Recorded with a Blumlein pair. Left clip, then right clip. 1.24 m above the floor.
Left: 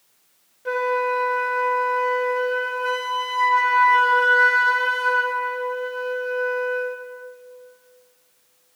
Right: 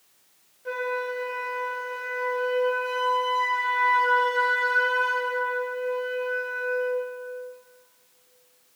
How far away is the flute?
About 1.2 m.